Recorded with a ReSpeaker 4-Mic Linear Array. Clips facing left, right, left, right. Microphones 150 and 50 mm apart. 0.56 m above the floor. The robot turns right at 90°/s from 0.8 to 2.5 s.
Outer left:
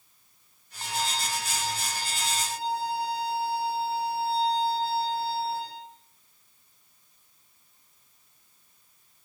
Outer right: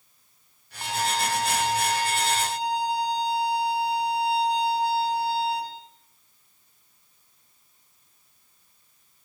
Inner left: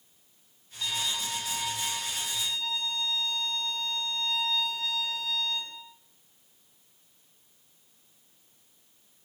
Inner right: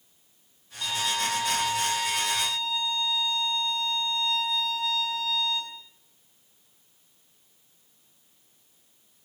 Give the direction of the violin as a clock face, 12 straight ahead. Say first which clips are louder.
Outer right 5 dB, inner right 5 dB; 5 o'clock.